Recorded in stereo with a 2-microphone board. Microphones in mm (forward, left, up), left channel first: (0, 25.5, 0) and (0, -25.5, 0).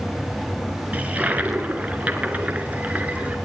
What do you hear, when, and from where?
0.9 s a toilet flushing: 30° right (ahead or behind), 2 m